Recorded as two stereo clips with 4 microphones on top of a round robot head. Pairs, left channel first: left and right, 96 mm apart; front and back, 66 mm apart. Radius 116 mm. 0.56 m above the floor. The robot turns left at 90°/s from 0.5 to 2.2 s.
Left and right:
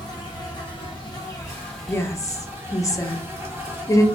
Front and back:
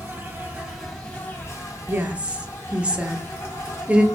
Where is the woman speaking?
145° left, 0.7 m; by 4.0 s 115° left, 0.7 m.